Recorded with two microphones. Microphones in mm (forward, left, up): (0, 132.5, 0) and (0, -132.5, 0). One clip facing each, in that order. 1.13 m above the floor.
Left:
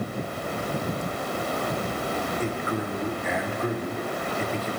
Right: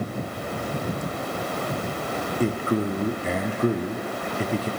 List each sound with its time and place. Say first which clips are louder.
2.4 s a man speaking: right 5 dB; 40° right (ahead or behind), 0.5 m